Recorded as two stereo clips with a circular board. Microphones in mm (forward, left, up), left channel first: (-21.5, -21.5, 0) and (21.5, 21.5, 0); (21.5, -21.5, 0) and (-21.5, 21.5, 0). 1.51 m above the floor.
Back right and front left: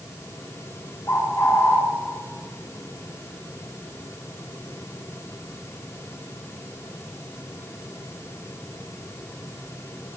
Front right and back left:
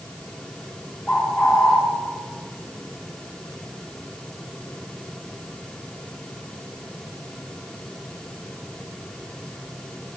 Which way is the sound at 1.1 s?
115° right.